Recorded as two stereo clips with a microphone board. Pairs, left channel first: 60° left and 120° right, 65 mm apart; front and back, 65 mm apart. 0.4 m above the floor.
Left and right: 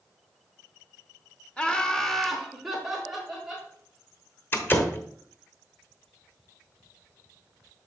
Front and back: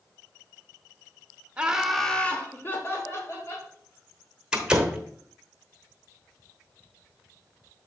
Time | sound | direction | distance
1.6 | laughter | 125° left | 0.8 m
4.5 | a door slam | 105° left | 1.0 m